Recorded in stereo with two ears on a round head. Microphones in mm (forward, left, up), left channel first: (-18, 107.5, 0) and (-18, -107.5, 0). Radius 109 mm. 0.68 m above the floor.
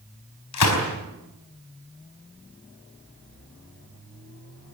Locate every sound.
0.5 s a gunshot: 80° left, 4.5 m